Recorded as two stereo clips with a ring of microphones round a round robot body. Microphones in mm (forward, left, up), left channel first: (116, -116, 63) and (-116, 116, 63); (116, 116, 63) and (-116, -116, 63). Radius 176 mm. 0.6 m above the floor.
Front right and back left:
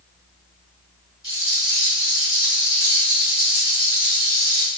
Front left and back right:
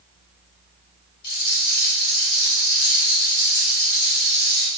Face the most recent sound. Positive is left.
turn(degrees=35)